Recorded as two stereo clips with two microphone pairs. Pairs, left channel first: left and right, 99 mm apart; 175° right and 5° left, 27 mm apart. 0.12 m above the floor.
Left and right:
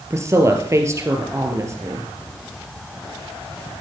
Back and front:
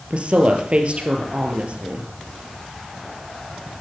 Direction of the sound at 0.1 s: 35° right.